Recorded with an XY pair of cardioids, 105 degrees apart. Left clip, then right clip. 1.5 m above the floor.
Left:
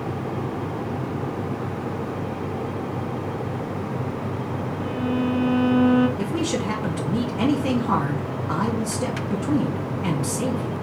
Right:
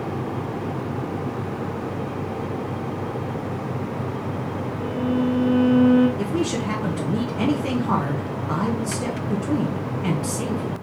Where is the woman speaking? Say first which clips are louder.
Right 1 dB; 5° left, 1.2 m.